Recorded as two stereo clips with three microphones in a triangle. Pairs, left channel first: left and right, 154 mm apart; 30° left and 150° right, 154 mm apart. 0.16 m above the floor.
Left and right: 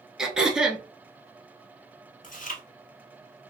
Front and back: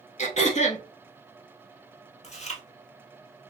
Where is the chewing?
65° left, 0.7 m.